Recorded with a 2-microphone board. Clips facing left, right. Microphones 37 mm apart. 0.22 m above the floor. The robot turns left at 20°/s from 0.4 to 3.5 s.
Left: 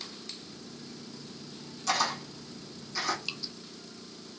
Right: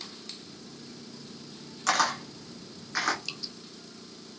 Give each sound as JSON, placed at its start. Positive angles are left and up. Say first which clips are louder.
{"t": 1.9, "sound": "a camera shutter", "louder": "right 3 dB", "side_deg": -65, "distance_m": 2.0}
{"t": 3.2, "sound": "dripping", "louder": "left 1 dB", "side_deg": 10, "distance_m": 0.9}